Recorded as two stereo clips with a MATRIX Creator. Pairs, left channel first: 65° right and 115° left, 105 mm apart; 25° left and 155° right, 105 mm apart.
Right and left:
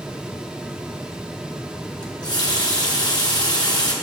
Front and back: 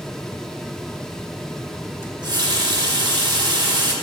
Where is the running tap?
115° right, 1.1 m.